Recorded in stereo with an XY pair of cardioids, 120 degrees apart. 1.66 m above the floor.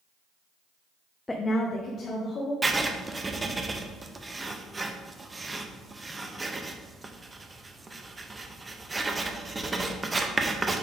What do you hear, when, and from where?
1.3 s a woman speaking: 15° left, 0.6 m; by 2.5 s 55° left, 2 m
2.6 s writing: 15° right, 0.7 m